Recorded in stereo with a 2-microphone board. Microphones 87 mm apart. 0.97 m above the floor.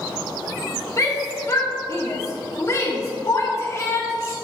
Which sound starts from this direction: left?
A shout, at 1.0 s.